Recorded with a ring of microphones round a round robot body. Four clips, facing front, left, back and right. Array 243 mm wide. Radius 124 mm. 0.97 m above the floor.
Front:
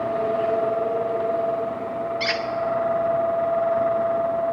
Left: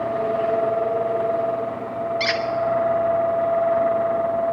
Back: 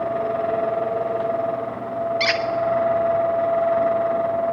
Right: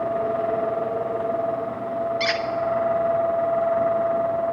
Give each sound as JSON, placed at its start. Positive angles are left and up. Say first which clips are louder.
{"t": 2.2, "sound": "a squeak", "louder": "left 1 dB, back 3 dB", "azimuth_deg": 175, "distance_m": 1.1}